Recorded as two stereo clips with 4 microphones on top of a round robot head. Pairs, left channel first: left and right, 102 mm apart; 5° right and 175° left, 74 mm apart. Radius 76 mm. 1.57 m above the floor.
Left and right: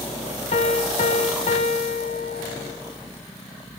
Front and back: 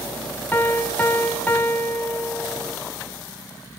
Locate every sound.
0.5 s a piano: 60° left, 1.7 m